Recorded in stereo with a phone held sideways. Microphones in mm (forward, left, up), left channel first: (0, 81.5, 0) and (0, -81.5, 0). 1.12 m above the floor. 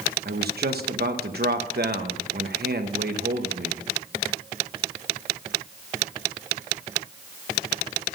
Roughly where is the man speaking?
Right.